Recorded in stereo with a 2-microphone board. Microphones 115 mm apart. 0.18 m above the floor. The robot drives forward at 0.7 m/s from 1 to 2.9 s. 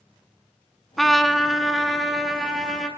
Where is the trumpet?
Centre (ahead or behind), 0.8 m.